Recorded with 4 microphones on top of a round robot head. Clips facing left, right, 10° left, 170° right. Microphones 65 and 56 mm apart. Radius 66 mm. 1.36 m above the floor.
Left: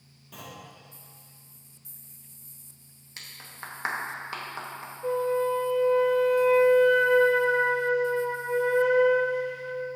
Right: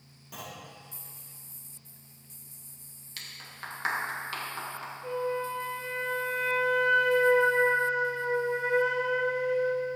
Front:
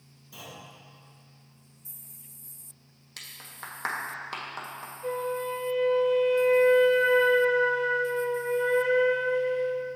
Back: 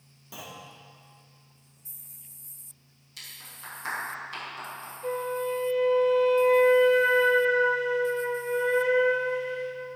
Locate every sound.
0.3 s a clunk: 170° right, 2.0 m
3.2 s a clap: 25° left, 1.7 m
5.0 s a flute: 105° left, 0.5 m